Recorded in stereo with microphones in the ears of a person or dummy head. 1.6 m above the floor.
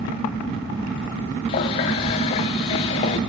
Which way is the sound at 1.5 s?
20° left (ahead or behind).